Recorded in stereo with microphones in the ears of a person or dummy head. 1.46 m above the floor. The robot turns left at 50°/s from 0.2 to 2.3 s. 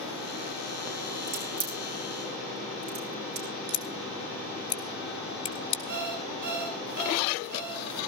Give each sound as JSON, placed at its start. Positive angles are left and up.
{"t": 1.3, "sound": "a crack", "side_deg": -20, "distance_m": 6.5}
{"t": 3.7, "sound": "scissors", "side_deg": 25, "distance_m": 2.0}
{"t": 5.9, "sound": "an alarm clock", "side_deg": -55, "distance_m": 7.5}